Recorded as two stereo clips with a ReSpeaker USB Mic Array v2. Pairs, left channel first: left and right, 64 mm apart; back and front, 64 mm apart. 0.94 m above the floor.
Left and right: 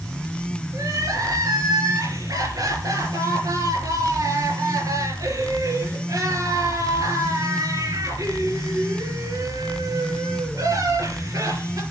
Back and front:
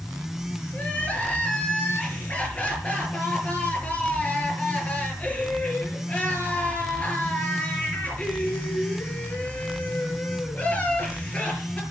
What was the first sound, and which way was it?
Crying, 110° right.